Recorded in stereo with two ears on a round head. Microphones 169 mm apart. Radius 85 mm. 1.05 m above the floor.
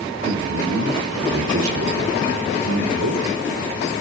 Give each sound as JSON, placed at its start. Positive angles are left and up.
{"t": 0.2, "sound": "a man speaking", "side_deg": -85, "distance_m": 3.0}